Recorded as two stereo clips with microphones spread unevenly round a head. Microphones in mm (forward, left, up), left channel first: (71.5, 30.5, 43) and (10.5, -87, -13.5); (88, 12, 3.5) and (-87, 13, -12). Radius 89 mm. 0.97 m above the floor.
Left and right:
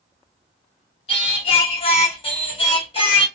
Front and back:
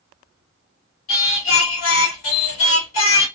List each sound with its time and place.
1.1 s singing: 10° left, 1.1 m